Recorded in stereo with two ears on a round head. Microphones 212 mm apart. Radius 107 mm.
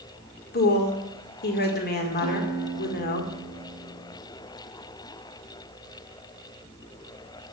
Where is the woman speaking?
45° left (ahead or behind), 1.9 m.